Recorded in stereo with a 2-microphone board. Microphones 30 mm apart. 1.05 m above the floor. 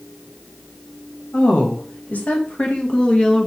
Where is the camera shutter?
No camera shutter in this recording.